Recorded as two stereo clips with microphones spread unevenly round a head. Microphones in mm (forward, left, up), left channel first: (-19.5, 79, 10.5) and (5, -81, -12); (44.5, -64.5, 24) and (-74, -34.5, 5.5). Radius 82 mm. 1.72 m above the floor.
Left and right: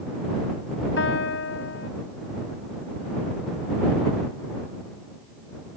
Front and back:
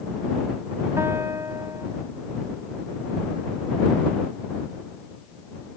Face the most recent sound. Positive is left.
turn(degrees=90)